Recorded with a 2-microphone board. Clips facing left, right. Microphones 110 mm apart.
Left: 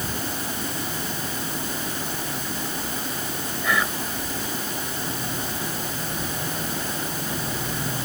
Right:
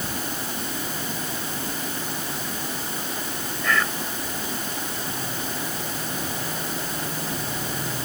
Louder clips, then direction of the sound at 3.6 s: Even; 10° left (ahead or behind).